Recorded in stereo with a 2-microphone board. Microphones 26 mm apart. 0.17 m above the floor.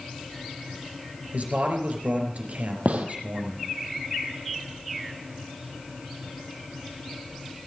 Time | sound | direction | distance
1.3 | a man speaking | 65° right (ahead or behind) | 3.5 m
2.9 | a gunshot | 65° right (ahead or behind) | 2 m